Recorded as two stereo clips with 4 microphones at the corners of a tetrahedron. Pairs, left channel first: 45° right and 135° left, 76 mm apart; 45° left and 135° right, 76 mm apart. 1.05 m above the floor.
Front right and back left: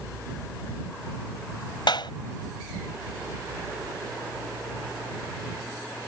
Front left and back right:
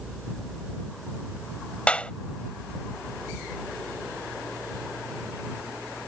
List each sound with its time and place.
1.9 s a clap: 30° right